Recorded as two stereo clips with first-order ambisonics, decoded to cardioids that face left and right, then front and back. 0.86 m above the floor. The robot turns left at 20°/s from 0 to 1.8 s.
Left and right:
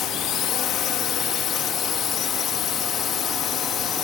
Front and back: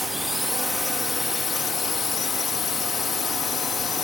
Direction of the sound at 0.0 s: 95° left.